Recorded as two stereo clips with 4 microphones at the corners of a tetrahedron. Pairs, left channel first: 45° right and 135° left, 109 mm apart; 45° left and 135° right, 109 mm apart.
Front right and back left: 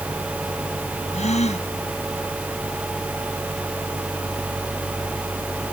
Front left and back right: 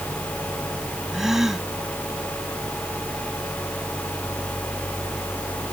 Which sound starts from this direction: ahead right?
A gasp, at 1.1 s.